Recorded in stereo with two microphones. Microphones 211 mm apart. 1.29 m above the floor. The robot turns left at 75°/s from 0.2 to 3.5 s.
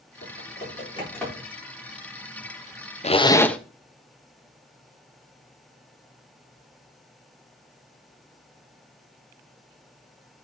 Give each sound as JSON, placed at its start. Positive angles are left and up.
{"t": 0.2, "sound": "typing on a keyboard", "side_deg": 80, "distance_m": 4.5}
{"t": 3.0, "sound": "a zipper", "azimuth_deg": 40, "distance_m": 0.8}